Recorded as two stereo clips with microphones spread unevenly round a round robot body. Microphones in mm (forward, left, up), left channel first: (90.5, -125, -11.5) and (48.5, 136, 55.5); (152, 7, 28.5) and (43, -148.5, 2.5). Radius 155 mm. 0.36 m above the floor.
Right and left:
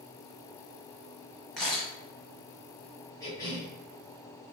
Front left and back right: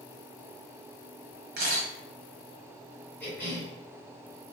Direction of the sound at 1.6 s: 165° right.